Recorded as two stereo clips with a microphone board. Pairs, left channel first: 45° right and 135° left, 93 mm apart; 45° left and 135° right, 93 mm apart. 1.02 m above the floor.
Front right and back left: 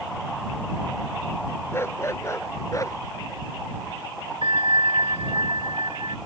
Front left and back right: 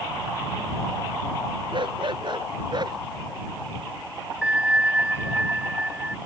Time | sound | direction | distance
1.7 | a dog barking | 105° right | ?
4.4 | a bell | 150° left | ?